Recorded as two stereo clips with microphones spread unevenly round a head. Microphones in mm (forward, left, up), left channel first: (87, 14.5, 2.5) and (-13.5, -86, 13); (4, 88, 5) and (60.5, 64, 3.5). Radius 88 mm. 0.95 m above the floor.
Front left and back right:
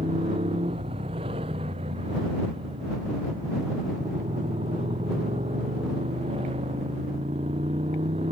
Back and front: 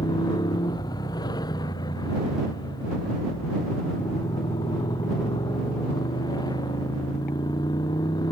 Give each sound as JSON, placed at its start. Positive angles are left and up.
{"t": 0.0, "sound": "a motorcycle", "azimuth_deg": 160}